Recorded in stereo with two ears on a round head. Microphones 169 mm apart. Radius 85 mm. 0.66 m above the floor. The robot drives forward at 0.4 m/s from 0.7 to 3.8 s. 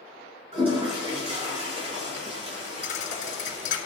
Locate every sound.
0.5 s a toilet flushing: 35° right (ahead or behind), 5 m; by 3.8 s 40° right (ahead or behind), 4 m
2.8 s a thud: 45° left (ahead or behind), 2.5 m; by 3.8 s 50° left (ahead or behind), 2 m